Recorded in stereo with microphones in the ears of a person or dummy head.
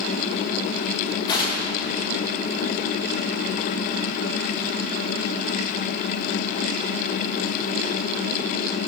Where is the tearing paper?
30° left (ahead or behind), 3 m.